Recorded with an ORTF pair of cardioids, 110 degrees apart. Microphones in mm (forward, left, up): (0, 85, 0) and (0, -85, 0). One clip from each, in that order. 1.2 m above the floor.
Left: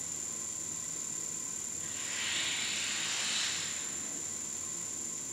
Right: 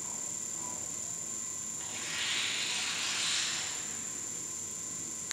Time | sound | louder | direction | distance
1.8 | tearing paper | right 2 dB | 50° right | 1.7 m